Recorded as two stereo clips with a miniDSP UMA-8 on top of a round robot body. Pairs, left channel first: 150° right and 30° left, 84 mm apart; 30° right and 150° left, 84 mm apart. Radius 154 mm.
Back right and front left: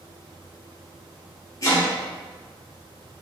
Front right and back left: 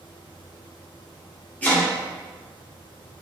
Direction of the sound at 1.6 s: 100° right.